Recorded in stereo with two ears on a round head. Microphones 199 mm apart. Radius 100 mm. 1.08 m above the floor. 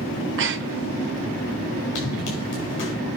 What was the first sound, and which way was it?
Breathing, 55° right (ahead or behind).